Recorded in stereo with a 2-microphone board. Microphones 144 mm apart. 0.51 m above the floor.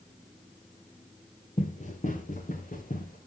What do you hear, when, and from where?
1.6 s running footsteps: 50° left (ahead or behind), 4 m; by 3.2 s 65° left (ahead or behind), 6 m